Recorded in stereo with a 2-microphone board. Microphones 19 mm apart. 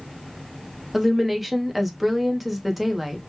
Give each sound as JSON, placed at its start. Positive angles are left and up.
{"t": 0.9, "sound": "a woman speaking", "side_deg": -10, "distance_m": 0.7}